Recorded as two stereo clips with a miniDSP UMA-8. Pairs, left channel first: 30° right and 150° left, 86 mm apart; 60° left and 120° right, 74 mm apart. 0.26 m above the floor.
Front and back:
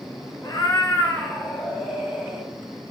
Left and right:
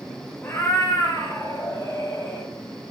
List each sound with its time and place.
0.4 s a cat meowing: 15° left, 0.9 m; by 2.5 s 75° left, 1.8 m